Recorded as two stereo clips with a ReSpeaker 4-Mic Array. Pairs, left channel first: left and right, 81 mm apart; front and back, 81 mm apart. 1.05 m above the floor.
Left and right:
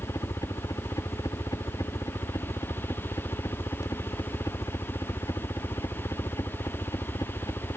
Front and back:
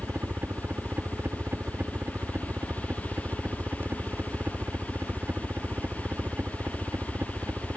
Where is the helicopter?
120° left.